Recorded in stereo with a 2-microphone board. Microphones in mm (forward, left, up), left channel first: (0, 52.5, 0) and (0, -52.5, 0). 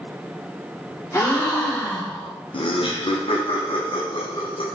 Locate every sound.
1.1 s a gasp: 30° left (ahead or behind), 1.3 m
2.5 s laughter: 55° left (ahead or behind), 0.6 m